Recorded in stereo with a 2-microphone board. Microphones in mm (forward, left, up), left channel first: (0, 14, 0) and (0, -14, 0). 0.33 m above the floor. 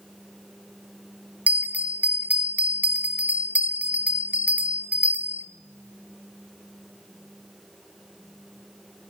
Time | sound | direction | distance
1.5 | a bell | 55° right (ahead or behind) | 0.9 m